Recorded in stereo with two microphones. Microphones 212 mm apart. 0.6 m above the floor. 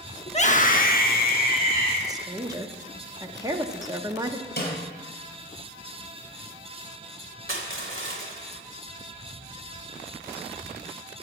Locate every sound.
0.3 s a scream: 30° left (ahead or behind), 0.9 m; by 2.0 s 40° left (ahead or behind), 1.8 m
2.1 s a woman speaking: 15° right (ahead or behind), 0.5 m
4.6 s a snare drum: 45° left (ahead or behind), 3.5 m
7.5 s crushing: 70° right (ahead or behind), 1.2 m